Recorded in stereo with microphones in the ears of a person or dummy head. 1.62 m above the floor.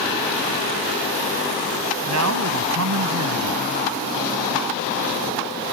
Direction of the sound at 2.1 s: 85° right.